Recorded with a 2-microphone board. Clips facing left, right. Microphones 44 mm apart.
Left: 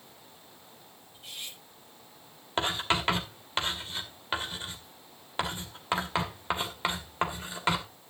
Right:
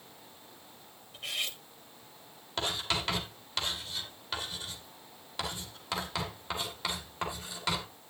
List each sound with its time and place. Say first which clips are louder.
1.1 s cutlery clinking: right 8 dB; 80° right, 1.1 m
2.6 s writing: left 5 dB; 30° left (ahead or behind), 2 m